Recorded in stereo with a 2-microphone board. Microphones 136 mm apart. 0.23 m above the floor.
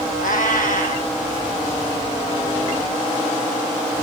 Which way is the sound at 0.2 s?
80° left.